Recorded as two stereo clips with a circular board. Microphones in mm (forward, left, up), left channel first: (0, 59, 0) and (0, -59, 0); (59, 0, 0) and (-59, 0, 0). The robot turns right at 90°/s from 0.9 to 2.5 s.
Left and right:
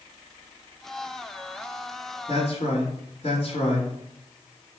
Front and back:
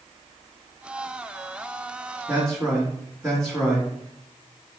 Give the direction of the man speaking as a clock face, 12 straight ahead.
10 o'clock.